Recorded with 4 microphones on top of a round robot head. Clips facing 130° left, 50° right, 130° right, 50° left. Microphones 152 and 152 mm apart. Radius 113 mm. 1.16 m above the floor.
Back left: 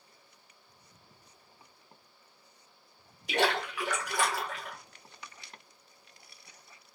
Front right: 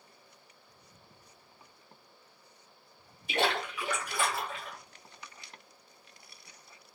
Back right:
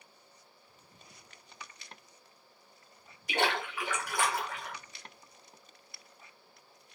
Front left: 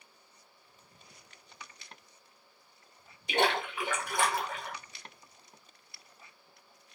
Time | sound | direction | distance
3.3 | a splash | 115° left | 1.6 m